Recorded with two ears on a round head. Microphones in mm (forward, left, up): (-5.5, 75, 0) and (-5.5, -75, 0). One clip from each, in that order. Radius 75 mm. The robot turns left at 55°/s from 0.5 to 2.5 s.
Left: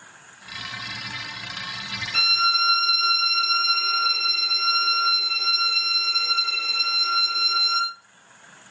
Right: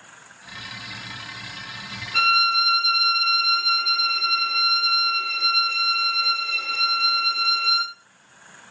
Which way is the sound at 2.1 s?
50° left (ahead or behind).